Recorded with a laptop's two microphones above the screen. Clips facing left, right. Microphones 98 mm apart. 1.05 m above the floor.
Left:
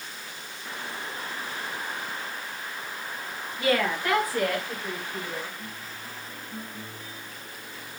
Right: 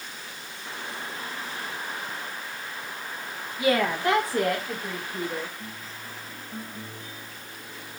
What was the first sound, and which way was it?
A woman speaking, 15° right (ahead or behind).